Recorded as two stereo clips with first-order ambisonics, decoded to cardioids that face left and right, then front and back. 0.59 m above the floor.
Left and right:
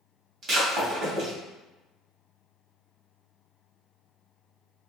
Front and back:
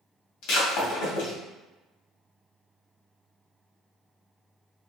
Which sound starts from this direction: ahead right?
Breaking glass, at 0.4 s.